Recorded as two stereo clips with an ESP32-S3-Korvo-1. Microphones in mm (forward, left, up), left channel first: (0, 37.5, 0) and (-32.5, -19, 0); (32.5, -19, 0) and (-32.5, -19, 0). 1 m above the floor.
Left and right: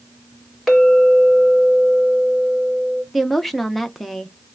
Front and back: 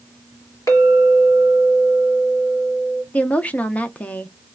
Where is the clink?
30° right, 2.5 m.